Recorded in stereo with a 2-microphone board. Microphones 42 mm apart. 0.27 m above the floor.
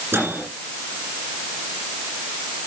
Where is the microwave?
75° right (ahead or behind), 7 m.